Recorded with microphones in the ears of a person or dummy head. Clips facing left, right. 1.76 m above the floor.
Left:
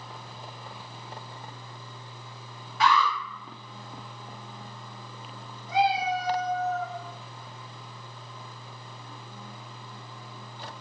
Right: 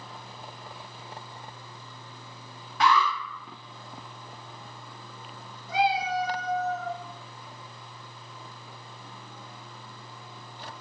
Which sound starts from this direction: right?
An alarm, at 2.8 s.